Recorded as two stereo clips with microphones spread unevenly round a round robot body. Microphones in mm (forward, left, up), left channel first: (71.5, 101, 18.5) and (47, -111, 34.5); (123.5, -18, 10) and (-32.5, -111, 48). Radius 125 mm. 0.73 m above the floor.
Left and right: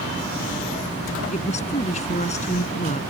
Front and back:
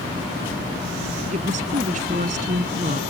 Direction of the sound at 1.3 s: 150° left.